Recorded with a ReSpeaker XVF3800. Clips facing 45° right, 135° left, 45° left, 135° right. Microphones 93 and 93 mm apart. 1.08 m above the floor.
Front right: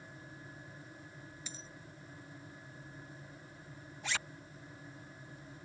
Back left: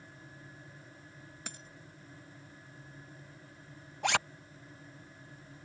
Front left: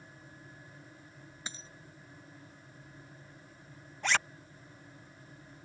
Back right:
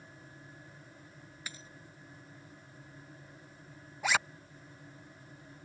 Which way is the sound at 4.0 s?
145° left.